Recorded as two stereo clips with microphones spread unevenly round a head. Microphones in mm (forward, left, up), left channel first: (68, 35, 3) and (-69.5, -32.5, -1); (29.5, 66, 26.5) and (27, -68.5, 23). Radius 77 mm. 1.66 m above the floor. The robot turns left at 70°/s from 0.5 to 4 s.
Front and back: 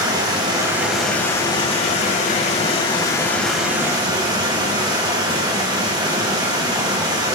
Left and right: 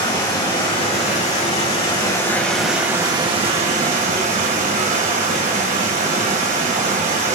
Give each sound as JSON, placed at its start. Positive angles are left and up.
{"t": 0.0, "sound": "running water", "azimuth_deg": 150, "distance_m": 2.0}